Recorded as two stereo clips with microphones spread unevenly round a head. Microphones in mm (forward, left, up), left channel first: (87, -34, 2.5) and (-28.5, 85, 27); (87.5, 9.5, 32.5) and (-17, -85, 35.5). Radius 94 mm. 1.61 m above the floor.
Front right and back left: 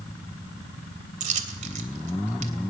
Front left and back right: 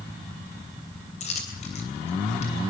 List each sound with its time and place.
1.2 s a dropped coin: 100° left, 3 m